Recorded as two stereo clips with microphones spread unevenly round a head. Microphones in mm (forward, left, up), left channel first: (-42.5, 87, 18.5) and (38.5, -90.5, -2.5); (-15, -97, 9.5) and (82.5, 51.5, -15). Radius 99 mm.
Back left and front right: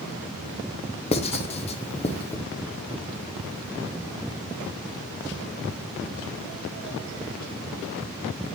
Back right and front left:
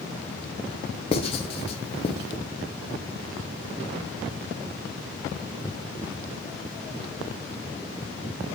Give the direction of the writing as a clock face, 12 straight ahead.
6 o'clock.